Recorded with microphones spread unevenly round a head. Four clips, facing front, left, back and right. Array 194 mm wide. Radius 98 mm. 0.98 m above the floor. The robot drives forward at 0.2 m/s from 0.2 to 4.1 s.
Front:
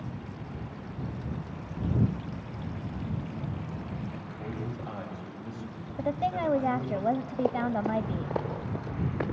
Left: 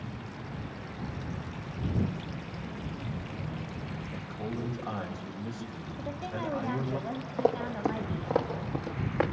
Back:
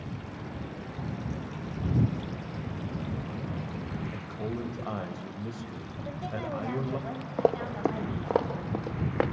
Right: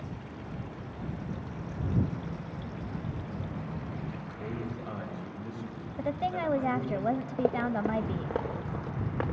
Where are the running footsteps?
175° right, 3 m; by 9.2 s 165° left, 5 m.